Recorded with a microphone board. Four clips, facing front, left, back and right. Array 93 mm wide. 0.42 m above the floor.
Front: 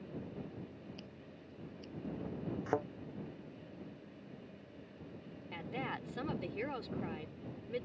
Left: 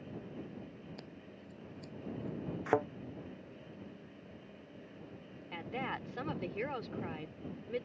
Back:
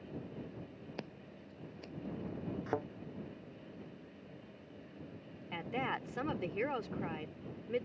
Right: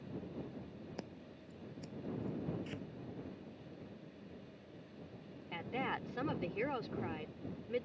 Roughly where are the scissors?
Behind.